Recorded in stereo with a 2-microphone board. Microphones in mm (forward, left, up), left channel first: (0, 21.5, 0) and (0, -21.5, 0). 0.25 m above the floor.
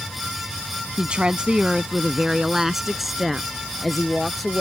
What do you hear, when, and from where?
1.0 s a woman speaking: 25° right (ahead or behind); by 4.6 s 5° left (ahead or behind)